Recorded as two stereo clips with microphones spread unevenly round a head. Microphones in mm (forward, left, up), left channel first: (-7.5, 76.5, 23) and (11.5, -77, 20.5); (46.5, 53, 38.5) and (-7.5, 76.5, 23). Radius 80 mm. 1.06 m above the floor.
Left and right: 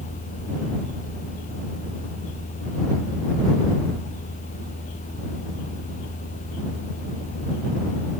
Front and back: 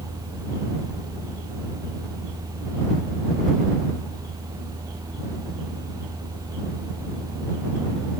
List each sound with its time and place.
0.0 s a fan: 145° left